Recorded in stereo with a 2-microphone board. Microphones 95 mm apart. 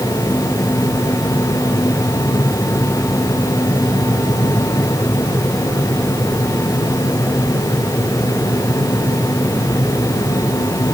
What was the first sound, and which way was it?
Only background noise.